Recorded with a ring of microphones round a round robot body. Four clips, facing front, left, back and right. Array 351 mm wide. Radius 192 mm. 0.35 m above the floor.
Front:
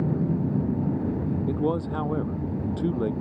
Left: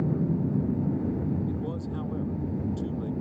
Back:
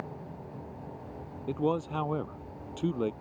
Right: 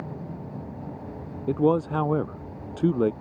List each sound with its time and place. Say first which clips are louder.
0.0 s an aircraft: left 9 dB, front 16 dB; 35° left
1.5 s a man speaking: right 11 dB, even; 75° right